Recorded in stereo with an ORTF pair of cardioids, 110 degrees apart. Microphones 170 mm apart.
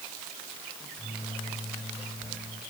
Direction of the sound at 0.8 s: 5° left.